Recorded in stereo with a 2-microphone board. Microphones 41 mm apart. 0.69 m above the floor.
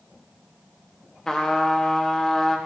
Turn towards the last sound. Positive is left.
turn(degrees=15)  # may be behind; listen again after turning